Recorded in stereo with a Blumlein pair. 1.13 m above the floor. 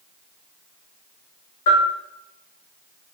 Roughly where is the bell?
Ahead left.